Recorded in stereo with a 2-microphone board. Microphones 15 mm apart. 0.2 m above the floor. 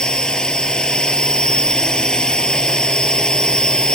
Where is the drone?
75° left (ahead or behind).